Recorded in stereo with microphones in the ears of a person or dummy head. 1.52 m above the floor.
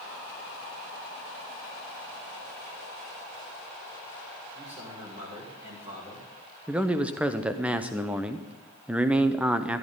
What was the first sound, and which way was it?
A man speaking, 30° right (ahead or behind).